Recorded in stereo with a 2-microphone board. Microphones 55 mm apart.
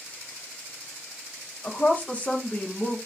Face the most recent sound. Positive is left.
turn(degrees=20)  # may be behind; listen again after turning